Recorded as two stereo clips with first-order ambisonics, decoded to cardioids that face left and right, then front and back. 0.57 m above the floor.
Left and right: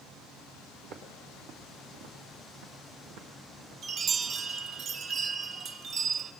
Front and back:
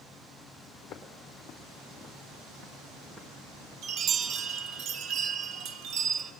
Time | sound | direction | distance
0.8 | footsteps | 55° right | 1.9 m
3.8 | a chime | 145° right | 0.5 m